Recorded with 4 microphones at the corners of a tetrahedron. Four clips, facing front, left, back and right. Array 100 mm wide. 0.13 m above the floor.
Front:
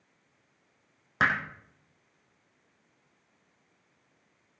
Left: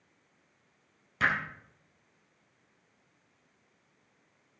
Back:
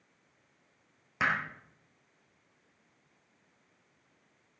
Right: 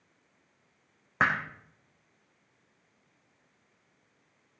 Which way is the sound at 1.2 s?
65° right.